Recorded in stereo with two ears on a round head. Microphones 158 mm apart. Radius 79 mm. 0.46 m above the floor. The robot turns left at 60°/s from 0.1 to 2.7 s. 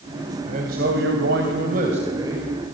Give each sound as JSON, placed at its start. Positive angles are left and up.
{"t": 0.5, "sound": "a man speaking", "azimuth_deg": -45, "distance_m": 3.0}